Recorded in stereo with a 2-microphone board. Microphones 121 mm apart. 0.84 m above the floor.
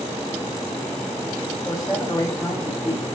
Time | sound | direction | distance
1.6 | a man speaking | 30° left (ahead or behind) | 5 m